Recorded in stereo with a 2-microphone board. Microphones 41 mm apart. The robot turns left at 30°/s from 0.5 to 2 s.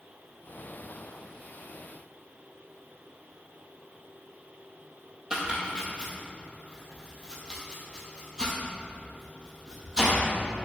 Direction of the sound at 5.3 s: 20° right (ahead or behind).